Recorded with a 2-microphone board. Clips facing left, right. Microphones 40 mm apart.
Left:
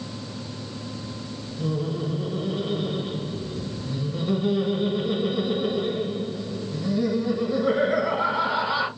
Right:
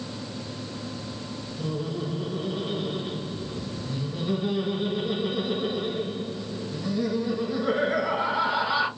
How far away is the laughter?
About 1.2 m.